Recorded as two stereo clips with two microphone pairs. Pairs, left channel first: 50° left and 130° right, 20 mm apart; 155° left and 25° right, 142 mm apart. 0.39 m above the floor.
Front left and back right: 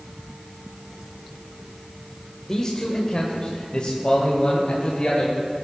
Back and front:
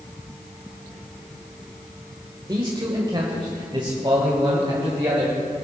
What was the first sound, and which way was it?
A man speaking, 10° left.